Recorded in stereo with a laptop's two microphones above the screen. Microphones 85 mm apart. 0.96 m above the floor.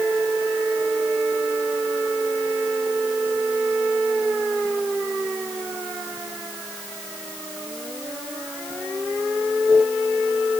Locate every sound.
Only background noise.